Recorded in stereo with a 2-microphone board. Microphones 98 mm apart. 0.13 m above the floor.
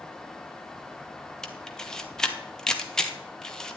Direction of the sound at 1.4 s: 5° left (ahead or behind).